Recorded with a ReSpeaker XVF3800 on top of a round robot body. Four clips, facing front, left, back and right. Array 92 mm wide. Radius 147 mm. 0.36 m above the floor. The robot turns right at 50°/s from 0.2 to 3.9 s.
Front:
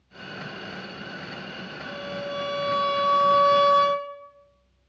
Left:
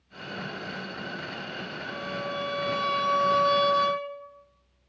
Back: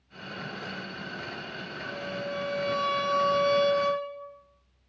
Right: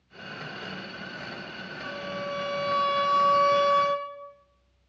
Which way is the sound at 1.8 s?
125° right.